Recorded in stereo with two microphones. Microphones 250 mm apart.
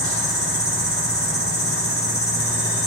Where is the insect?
60° left (ahead or behind), 3.5 m.